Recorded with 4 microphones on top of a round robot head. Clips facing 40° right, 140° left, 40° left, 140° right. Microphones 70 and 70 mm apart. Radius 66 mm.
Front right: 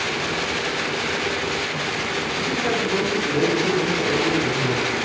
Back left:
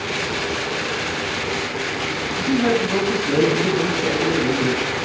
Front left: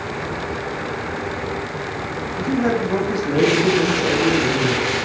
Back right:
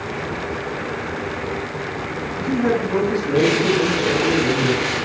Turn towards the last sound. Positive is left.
turn(degrees=110)